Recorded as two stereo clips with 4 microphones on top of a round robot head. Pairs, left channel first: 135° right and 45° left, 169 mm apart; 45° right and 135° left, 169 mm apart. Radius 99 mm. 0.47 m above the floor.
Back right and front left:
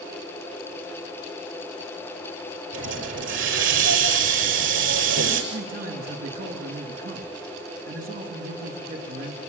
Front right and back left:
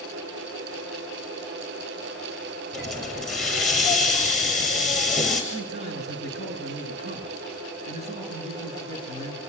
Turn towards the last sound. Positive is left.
turn(degrees=80)